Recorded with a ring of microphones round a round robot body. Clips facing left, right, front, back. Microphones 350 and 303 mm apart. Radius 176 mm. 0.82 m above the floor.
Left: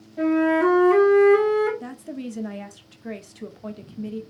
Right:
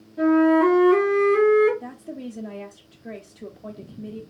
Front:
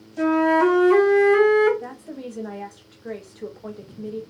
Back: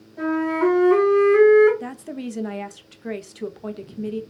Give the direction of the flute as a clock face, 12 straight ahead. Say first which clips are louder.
Right 3 dB, front 3 dB; 11 o'clock.